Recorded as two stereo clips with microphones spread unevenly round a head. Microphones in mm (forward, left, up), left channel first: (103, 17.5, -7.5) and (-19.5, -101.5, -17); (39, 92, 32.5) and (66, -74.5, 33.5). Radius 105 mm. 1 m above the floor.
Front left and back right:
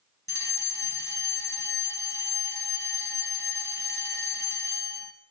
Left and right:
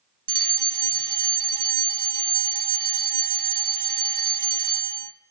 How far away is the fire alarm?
About 1.5 m.